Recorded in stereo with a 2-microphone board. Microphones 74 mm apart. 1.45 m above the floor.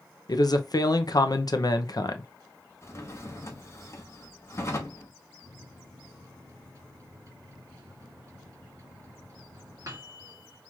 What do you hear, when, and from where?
0.3 s a man speaking: 55° left (ahead or behind), 0.6 m
2.8 s a drawer: 35° left (ahead or behind), 0.9 m
5.4 s a microwave: 40° right (ahead or behind), 2 m